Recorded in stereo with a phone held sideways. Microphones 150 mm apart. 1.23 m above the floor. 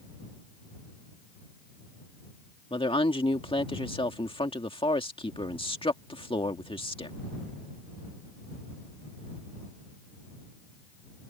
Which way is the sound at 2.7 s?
35° left (ahead or behind).